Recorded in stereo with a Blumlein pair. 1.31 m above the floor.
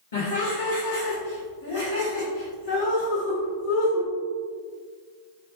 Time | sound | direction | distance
0.1 | laughter | 65° left | 1.2 m